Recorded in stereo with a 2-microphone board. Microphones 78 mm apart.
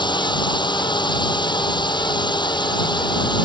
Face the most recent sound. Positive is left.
turn(degrees=75)  # may be behind; listen again after turning